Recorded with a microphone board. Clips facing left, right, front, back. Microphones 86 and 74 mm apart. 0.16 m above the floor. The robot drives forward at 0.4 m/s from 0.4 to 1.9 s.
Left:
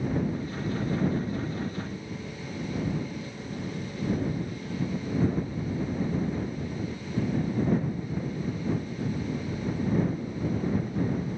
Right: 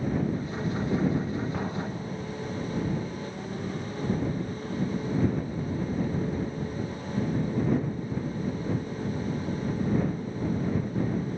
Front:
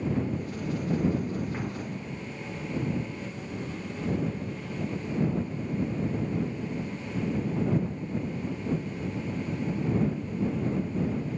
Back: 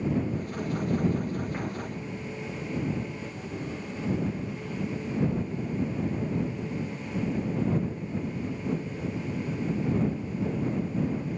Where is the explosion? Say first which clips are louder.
Right 2 dB, back 1 dB; 95° right.